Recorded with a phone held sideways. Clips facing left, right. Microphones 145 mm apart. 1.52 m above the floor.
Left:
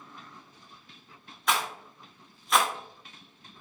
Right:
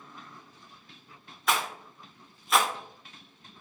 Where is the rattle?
Centre (ahead or behind), 0.6 m.